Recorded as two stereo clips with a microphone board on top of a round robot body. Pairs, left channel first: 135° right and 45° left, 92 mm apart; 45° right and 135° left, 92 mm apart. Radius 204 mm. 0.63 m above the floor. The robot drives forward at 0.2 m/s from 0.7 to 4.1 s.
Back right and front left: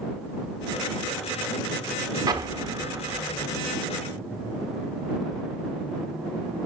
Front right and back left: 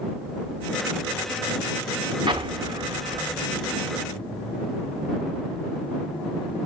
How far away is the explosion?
About 1.0 m.